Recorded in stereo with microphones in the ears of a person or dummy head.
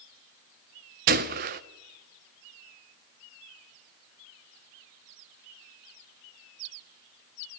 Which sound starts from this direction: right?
A gunshot, at 1.1 s.